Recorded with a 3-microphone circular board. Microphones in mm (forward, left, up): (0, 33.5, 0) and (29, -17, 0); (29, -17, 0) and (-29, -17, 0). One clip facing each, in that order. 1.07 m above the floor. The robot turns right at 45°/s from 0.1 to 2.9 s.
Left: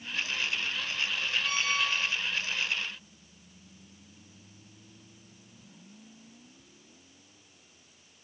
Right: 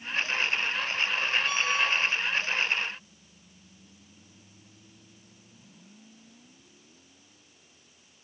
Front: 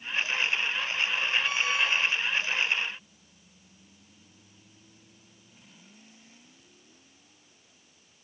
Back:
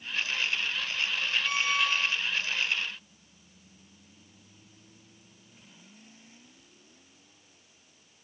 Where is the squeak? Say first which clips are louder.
Right 3 dB, front 1 dB; 135° left, 2.5 m; by 2.2 s 170° left, 2.5 m.